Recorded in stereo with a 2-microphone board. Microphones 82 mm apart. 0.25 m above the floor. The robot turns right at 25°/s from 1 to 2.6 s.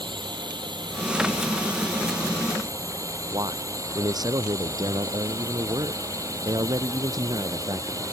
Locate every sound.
0.0 s a drone: 85° right; by 8.1 s 45° right
3.3 s a man speaking: 60° right (ahead or behind)